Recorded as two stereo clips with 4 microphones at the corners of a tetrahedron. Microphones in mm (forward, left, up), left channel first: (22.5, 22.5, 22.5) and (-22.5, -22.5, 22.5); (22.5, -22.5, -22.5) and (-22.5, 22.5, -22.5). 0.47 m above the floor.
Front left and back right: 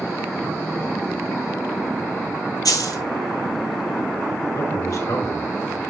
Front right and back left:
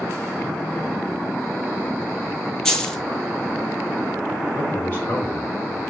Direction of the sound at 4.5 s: 10° left.